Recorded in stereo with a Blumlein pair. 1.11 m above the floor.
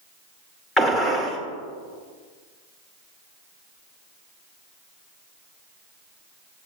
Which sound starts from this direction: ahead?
A gunshot, at 0.8 s.